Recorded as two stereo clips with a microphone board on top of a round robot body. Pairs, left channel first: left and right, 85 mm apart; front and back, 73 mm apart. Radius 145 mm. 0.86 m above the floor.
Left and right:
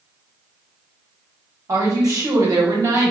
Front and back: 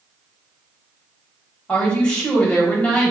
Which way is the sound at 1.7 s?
70° right.